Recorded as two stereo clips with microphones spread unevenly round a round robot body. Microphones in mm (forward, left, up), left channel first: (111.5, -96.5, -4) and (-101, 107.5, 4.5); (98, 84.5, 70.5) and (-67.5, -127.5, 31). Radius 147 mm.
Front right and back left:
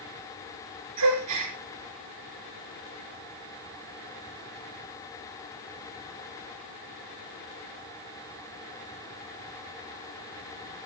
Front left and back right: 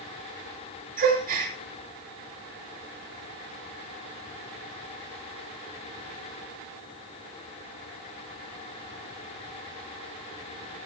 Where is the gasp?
170° left, 5.5 m.